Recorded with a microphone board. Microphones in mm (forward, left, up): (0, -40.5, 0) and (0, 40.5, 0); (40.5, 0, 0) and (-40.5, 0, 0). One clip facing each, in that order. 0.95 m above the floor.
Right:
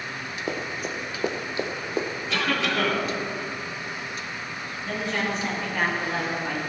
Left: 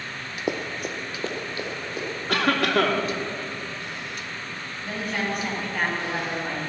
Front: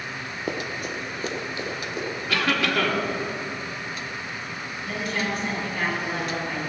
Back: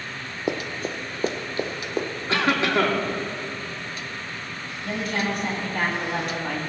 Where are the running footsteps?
135° left, 1.0 m; by 2.1 s 140° right, 1.9 m.